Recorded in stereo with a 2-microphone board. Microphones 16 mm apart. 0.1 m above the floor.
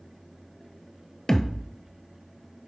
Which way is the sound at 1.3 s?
25° left (ahead or behind).